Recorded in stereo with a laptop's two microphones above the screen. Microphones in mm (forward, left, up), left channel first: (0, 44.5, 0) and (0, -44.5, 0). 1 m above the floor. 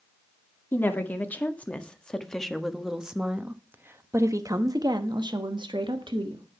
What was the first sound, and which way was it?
A woman speaking, 25° left (ahead or behind).